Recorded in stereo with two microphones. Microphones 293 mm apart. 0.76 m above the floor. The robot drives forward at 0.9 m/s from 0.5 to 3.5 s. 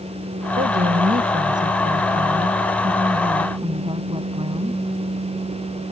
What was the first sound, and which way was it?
A woman speaking, 35° right (ahead or behind).